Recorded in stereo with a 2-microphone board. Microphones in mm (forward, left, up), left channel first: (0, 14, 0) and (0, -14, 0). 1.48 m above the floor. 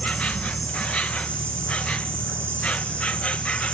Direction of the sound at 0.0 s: 50° left (ahead or behind).